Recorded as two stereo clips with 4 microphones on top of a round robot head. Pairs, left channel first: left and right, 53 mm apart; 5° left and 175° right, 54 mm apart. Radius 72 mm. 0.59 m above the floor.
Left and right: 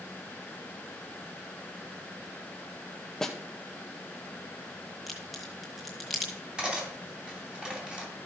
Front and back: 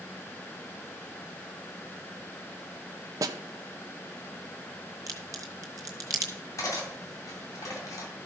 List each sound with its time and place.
3.2 s a snare drum: 175° left, 0.5 m
5.1 s a crack: 175° right, 1.5 m
6.6 s cutlery clinking: 15° right, 2.5 m